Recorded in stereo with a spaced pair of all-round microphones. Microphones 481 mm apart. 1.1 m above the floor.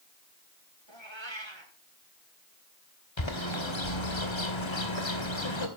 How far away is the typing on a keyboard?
I don't hear typing on a keyboard.